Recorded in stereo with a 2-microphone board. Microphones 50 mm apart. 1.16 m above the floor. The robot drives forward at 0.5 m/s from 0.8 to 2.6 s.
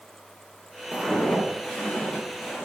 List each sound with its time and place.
0.9 s footsteps: centre (ahead or behind), 1.2 m; by 2.6 s 25° left (ahead or behind), 2.5 m